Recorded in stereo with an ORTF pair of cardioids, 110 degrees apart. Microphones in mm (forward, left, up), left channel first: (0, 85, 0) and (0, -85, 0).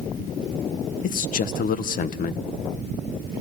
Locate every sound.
1.0 s a man speaking: 55° left, 1.5 m